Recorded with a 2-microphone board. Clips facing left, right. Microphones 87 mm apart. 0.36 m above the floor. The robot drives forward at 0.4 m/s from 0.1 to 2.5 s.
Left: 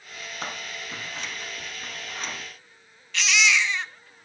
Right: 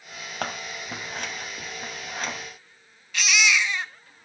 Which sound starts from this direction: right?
Scissors, at 0.4 s.